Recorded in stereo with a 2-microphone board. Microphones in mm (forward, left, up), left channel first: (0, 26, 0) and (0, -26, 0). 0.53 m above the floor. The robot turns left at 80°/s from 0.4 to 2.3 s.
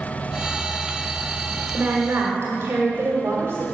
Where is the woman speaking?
45° right, 1.5 m; by 3.6 s 90° right, 1.5 m.